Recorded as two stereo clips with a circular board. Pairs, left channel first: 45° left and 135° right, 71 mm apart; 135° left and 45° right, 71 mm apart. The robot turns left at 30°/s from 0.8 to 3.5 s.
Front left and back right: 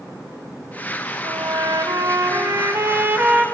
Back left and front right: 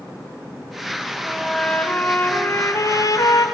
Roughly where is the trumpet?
Behind right.